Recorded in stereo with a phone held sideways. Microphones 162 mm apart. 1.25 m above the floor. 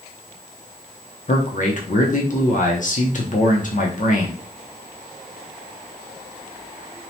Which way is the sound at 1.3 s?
50° left (ahead or behind).